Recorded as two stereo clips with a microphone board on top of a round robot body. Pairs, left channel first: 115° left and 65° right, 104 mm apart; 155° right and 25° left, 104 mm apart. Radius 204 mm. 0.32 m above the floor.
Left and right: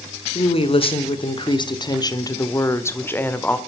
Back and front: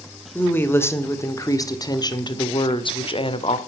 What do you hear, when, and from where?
0.3 s a woman speaking: 130° left, 2 m; by 3.6 s 170° right, 1.9 m